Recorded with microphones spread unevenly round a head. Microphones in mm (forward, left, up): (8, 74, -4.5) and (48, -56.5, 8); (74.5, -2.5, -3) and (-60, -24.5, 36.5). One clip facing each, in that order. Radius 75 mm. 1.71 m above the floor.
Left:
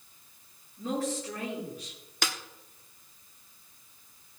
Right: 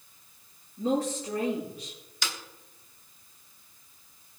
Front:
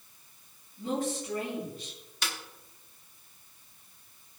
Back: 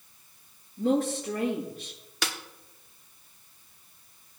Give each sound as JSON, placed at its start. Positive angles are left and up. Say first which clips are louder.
{"t": 0.8, "sound": "a woman speaking", "louder": "right 4 dB, back 7 dB", "azimuth_deg": -150, "distance_m": 7.0}
{"t": 2.2, "sound": "a snare drum", "louder": "left 3 dB, back 4 dB", "azimuth_deg": 155, "distance_m": 1.1}